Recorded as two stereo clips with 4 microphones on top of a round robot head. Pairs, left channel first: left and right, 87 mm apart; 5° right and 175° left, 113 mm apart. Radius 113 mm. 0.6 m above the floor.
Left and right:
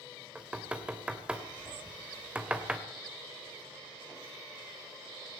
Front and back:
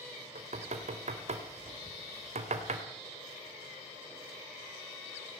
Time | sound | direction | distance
0.3 | knocking | 165° right | 2.5 m